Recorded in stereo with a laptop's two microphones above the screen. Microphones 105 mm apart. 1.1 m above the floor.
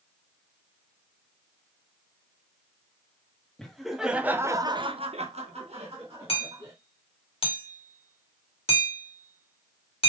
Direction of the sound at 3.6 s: 5° left (ahead or behind).